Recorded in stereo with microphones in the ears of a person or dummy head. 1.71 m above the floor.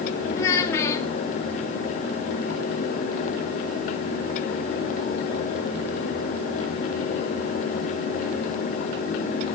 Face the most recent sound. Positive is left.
turn(degrees=15)  # may be behind; listen again after turning